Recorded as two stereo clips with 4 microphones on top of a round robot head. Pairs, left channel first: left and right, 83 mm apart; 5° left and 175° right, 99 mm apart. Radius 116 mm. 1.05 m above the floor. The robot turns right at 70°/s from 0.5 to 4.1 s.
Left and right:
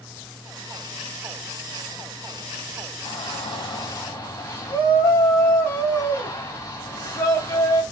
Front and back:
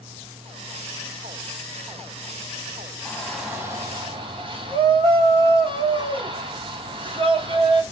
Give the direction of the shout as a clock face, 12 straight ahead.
9 o'clock.